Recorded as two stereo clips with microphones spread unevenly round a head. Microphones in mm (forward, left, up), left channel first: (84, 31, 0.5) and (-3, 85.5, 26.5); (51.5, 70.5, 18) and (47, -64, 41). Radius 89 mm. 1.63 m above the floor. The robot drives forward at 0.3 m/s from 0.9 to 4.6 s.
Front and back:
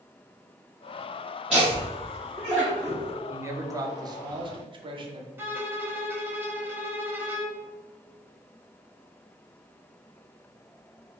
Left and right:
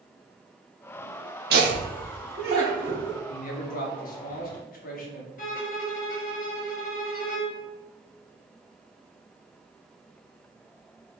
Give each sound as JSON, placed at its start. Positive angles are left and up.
{"t": 1.5, "sound": "laughter", "azimuth_deg": -130, "distance_m": 0.6}
{"t": 3.3, "sound": "a man speaking", "azimuth_deg": 80, "distance_m": 0.9}
{"t": 5.4, "sound": "a violin", "azimuth_deg": 110, "distance_m": 0.8}